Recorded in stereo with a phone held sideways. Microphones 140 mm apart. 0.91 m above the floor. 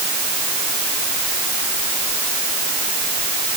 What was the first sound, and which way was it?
Only background noise.